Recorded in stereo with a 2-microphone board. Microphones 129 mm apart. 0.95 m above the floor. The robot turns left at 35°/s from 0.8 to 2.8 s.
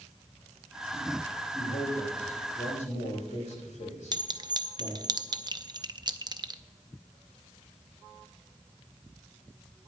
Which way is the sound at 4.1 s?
35° right (ahead or behind).